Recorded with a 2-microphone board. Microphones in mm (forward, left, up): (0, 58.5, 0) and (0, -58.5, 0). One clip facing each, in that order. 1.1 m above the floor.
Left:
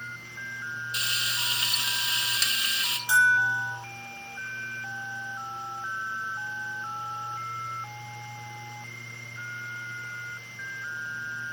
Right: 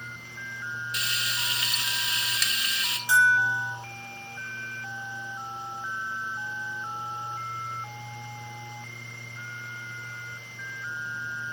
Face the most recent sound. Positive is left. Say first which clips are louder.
# right 1 dB
turn(degrees=20)  # may be behind; listen again after turning